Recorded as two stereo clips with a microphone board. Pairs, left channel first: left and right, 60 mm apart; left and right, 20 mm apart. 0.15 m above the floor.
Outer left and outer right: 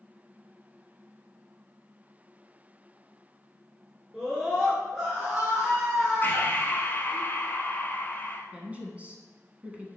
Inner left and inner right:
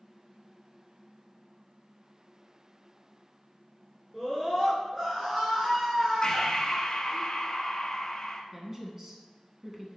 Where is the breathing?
35° left (ahead or behind), 1.0 m.